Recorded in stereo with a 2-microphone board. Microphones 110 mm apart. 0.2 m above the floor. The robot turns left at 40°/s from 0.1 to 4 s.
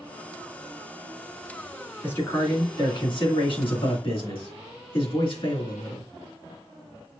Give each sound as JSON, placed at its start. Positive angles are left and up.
{"t": 2.0, "sound": "a man speaking", "azimuth_deg": 160, "distance_m": 2.5}